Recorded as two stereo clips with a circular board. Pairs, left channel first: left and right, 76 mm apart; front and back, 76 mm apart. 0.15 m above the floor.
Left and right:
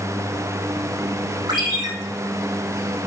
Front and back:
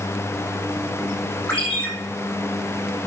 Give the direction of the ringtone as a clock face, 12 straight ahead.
3 o'clock.